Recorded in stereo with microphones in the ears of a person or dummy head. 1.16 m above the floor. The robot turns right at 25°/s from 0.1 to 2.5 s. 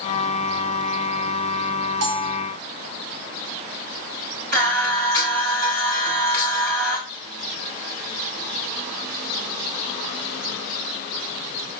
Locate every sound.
2.0 s a bell: 60° right (ahead or behind), 2.5 m; by 2.4 s 70° right (ahead or behind), 2.5 m
4.5 s singing: 55° right (ahead or behind), 5.5 m